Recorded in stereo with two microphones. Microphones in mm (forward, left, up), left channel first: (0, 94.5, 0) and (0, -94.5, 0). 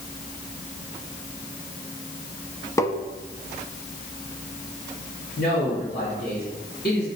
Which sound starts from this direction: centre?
Tapping, at 2.8 s.